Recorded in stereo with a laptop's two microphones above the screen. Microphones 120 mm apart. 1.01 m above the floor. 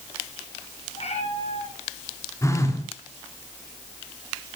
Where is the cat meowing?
65° left (ahead or behind), 9.5 m.